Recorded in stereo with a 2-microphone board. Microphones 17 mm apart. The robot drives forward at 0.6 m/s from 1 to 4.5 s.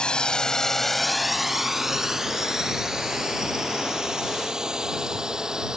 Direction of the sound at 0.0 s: 60° left (ahead or behind).